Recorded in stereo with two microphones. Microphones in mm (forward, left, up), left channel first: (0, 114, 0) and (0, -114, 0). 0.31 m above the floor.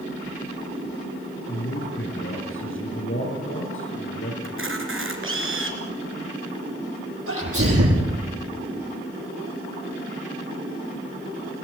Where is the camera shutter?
60° right (ahead or behind), 3.5 m.